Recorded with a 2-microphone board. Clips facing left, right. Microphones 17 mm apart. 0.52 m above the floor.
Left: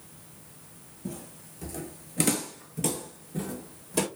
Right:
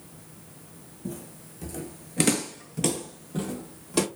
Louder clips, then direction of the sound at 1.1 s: Right 2 dB; 10° left (ahead or behind).